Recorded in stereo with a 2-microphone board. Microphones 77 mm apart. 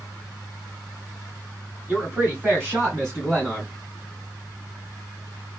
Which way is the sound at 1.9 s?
30° right (ahead or behind).